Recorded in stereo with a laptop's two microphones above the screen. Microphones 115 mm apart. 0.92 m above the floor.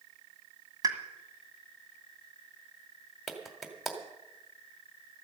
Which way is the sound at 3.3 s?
Centre (ahead or behind).